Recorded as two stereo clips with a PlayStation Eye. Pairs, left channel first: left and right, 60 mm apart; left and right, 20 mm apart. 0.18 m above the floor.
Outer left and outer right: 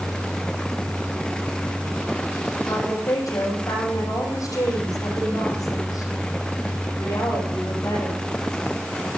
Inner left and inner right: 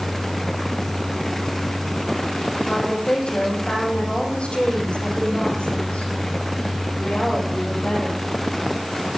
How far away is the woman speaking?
About 8.5 m.